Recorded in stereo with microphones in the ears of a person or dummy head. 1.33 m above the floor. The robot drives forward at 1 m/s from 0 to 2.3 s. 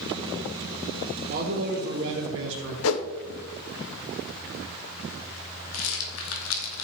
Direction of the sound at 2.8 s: 70° left (ahead or behind).